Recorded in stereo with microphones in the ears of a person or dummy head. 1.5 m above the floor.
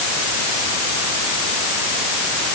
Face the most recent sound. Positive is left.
No sound to turn to.